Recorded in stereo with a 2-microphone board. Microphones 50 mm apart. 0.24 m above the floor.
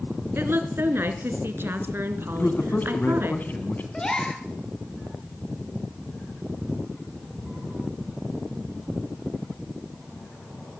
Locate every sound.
0.3 s a woman speaking: 50° right (ahead or behind), 3.5 m
2.4 s a man speaking: 40° left (ahead or behind), 2.5 m
3.9 s a gasp: 15° left (ahead or behind), 3 m